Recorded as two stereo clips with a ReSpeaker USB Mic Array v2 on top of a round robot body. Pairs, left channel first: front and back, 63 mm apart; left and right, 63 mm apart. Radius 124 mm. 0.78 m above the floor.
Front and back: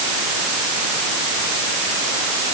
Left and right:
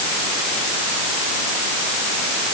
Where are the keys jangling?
No keys jangling in this recording.